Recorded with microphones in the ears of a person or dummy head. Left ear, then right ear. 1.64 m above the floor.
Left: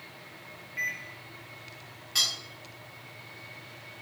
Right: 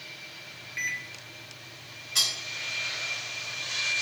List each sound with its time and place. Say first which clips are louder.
0.8 s a microwave: right 1 dB; 20° right (ahead or behind), 0.5 m
2.1 s cutlery clinking: right 1 dB; 10° left (ahead or behind), 0.8 m